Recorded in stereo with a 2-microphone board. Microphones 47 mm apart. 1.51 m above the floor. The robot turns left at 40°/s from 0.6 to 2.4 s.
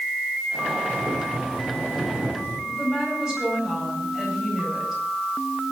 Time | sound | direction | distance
0.9 | boiling | 40° left | 9 m
2.7 | a woman speaking | 10° right (ahead or behind) | 8.5 m